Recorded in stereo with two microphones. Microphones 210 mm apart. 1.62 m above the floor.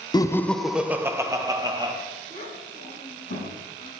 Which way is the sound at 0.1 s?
20° left (ahead or behind).